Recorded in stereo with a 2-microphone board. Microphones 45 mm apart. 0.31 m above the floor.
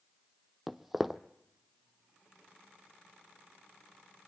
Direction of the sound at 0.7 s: 5° right (ahead or behind).